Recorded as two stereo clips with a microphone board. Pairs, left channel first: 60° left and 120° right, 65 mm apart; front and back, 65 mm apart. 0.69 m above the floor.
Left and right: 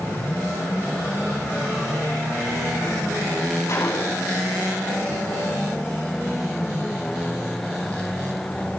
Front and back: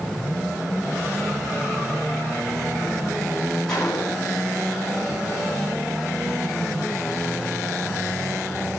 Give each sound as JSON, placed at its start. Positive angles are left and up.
{"t": 3.7, "sound": "a gunshot", "azimuth_deg": 80, "distance_m": 6.0}